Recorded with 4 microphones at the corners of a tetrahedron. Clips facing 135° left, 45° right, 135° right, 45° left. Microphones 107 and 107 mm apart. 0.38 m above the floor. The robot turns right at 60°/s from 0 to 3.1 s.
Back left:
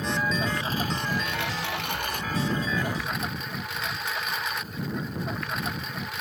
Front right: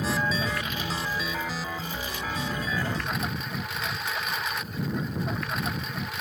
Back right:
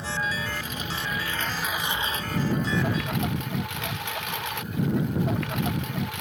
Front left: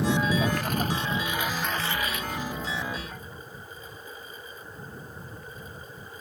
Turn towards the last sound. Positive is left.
turn(degrees=-135)